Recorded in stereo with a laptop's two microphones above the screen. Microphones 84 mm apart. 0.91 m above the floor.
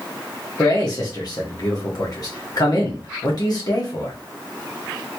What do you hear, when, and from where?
0.6 s a man speaking: 50° left (ahead or behind), 1.3 m